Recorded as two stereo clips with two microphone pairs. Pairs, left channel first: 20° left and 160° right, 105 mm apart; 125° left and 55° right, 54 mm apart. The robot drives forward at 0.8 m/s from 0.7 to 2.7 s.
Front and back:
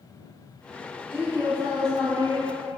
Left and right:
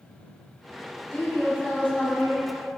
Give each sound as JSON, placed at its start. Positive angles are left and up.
{"t": 1.1, "sound": "a woman speaking", "azimuth_deg": -170, "distance_m": 1.1}